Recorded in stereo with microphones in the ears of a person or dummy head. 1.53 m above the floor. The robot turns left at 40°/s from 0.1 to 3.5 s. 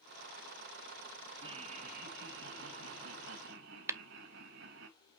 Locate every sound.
1.4 s laughter: 30° right, 1.9 m; by 4.9 s 115° right, 1.9 m
3.9 s tapping: 15° right (ahead or behind), 0.7 m